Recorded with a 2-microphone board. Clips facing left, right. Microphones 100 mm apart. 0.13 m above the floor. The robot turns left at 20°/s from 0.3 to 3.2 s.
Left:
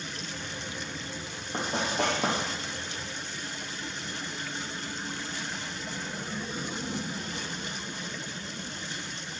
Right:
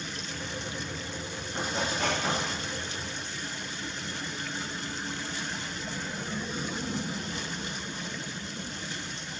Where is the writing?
60° left (ahead or behind), 4 m; by 2.4 s 75° left (ahead or behind), 4 m.